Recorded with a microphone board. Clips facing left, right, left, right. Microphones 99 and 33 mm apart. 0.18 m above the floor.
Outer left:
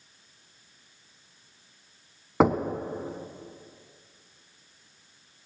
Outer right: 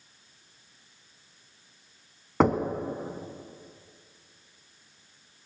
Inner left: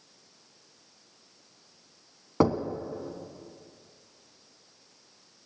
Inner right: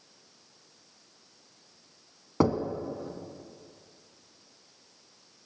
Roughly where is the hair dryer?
No hair dryer in this recording.